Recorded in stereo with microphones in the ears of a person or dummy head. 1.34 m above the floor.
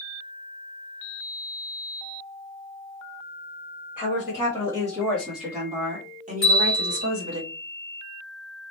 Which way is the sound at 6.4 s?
30° left (ahead or behind).